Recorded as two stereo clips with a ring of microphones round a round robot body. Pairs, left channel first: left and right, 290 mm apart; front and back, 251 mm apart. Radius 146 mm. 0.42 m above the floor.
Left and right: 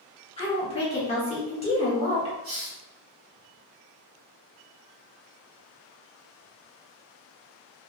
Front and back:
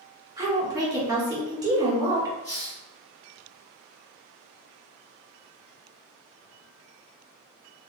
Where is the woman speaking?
125° left, 1.2 m.